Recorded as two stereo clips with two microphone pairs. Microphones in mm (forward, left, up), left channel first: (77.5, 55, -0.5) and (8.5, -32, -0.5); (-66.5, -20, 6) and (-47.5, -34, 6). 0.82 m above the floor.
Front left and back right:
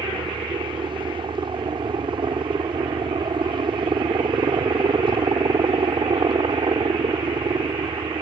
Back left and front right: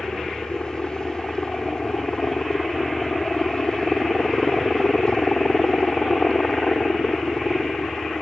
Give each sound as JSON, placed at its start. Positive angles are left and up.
{"t": 0.0, "sound": "a helicopter", "azimuth_deg": -160}